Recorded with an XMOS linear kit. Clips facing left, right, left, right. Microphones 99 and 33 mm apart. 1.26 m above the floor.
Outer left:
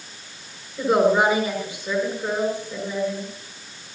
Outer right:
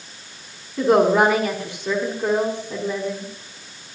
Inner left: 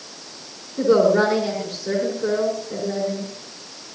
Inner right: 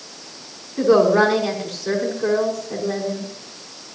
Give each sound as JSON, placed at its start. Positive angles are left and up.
{"t": 0.8, "sound": "a woman speaking", "side_deg": -85, "distance_m": 5.0}